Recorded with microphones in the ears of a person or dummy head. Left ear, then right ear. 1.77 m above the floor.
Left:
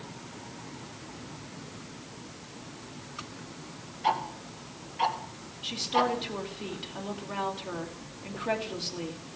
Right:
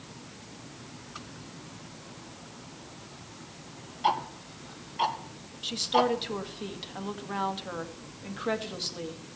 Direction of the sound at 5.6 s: 20° right (ahead or behind).